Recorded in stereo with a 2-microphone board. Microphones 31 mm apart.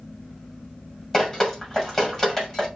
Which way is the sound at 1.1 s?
10° left (ahead or behind).